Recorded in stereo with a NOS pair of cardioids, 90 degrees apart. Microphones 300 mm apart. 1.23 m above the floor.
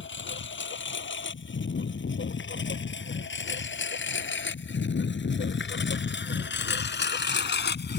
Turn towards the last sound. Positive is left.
turn(degrees=40)